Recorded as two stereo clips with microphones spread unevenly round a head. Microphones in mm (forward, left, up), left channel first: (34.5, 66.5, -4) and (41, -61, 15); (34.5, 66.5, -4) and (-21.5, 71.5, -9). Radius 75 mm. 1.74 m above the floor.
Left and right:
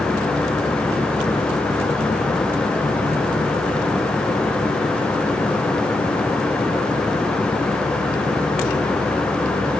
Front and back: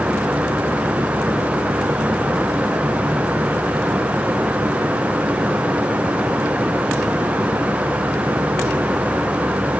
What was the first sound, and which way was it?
Only background noise.